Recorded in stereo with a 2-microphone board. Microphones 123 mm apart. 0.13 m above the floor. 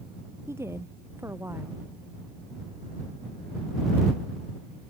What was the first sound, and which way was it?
A woman speaking, 20° right (ahead or behind).